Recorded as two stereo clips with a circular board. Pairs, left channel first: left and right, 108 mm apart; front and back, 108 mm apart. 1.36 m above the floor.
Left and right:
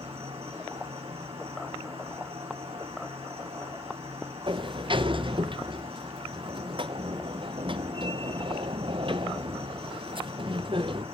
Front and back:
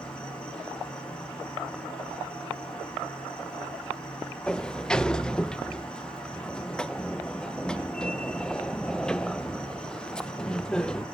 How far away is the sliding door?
About 0.6 m.